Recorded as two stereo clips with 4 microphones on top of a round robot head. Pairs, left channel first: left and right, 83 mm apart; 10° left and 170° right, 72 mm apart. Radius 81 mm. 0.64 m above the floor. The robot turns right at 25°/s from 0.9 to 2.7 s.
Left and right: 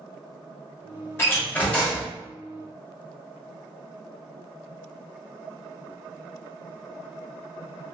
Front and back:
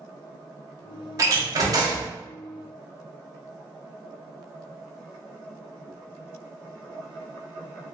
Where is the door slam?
150° left, 0.8 m; by 2.1 s 175° left, 0.8 m.